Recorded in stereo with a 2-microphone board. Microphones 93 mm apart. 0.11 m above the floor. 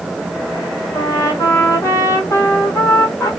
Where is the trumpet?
35° left (ahead or behind), 2 m.